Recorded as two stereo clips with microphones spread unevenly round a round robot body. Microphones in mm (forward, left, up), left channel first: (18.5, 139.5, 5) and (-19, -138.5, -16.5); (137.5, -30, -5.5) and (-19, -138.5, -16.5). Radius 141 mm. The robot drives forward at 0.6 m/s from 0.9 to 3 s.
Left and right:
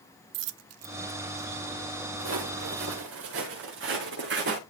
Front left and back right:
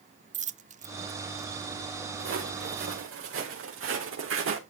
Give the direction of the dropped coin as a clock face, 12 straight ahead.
3 o'clock.